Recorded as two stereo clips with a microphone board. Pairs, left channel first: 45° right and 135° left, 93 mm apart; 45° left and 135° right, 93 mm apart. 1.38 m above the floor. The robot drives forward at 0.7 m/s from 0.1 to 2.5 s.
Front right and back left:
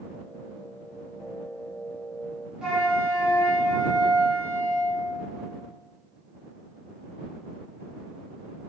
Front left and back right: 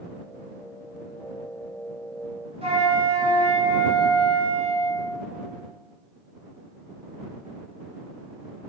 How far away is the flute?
About 1.5 m.